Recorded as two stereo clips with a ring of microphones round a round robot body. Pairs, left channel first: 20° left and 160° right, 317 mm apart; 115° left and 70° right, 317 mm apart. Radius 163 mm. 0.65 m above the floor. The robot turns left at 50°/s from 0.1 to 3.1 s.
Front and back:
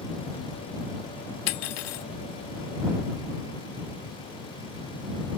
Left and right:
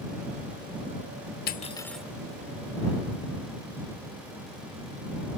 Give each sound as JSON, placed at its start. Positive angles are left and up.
{"t": 1.5, "sound": "cutlery clinking", "azimuth_deg": 50}